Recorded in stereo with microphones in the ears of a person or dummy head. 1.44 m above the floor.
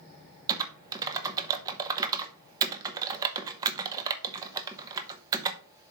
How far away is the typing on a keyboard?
About 0.7 m.